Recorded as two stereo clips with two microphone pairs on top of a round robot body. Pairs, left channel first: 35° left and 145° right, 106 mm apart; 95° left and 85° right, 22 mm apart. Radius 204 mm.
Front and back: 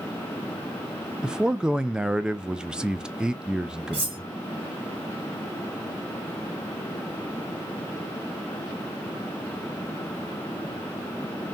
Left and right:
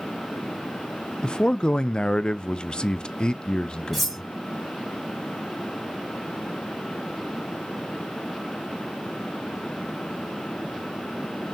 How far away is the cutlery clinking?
About 2.5 m.